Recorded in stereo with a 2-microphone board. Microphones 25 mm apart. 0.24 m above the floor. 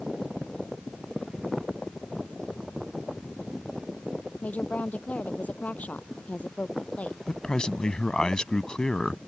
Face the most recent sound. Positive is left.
turn(degrees=35)  # may be behind; listen again after turning